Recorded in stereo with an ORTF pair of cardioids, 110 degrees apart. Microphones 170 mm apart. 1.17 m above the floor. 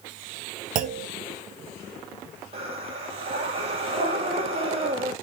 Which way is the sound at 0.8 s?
55° right.